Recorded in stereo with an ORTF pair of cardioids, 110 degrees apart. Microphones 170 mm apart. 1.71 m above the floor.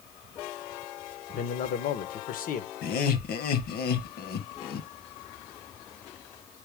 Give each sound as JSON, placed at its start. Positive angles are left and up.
{"t": 1.3, "sound": "a man speaking", "azimuth_deg": 60, "distance_m": 1.6}
{"t": 2.8, "sound": "laughter", "azimuth_deg": 65, "distance_m": 2.0}